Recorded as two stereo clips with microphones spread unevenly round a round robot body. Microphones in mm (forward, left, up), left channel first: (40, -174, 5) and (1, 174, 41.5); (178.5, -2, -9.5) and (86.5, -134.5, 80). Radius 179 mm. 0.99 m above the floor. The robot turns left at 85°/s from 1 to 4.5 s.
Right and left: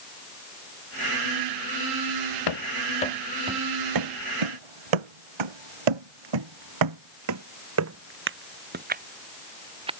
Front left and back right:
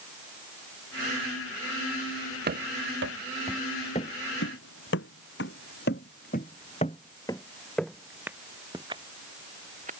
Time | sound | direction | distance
2.5 | running footsteps | 115° right | ?